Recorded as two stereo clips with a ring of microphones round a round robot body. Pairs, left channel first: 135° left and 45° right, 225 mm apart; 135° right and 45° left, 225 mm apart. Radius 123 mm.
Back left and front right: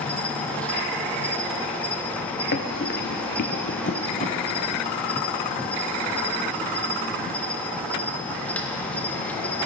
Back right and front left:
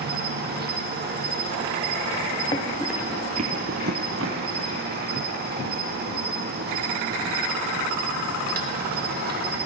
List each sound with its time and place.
0.0 s an insect: 55° left, 1.0 m
2.5 s running footsteps: 160° left, 0.8 m; by 5.0 s 65° left, 1.7 m